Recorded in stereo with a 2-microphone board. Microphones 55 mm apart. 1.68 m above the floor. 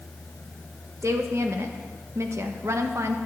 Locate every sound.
1.0 s a woman speaking: 60° right (ahead or behind), 1.5 m